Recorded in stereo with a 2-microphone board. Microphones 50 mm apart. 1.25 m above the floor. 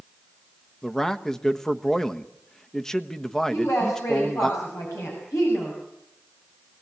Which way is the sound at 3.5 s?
85° left.